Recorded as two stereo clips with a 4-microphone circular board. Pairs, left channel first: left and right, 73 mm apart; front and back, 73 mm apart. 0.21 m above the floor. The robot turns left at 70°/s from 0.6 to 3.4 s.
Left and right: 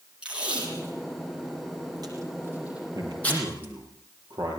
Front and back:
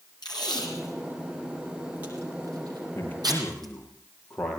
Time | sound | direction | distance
0.2 | tape being pulled | 15° right | 8 m
3.0 | a man speaking | 50° right | 6 m